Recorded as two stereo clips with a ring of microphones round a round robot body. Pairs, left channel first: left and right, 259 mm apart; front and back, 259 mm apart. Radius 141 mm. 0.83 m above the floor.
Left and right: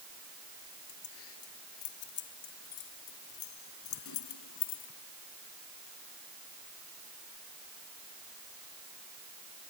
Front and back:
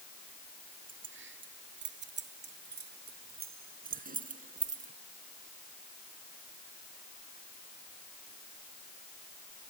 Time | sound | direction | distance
0.9 | keys jangling | 135° left | ?